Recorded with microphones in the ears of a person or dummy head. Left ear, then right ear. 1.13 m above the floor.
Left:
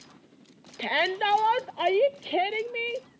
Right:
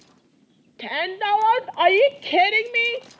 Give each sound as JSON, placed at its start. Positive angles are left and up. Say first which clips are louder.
{"t": 0.8, "sound": "a shout", "louder": "even", "side_deg": 5}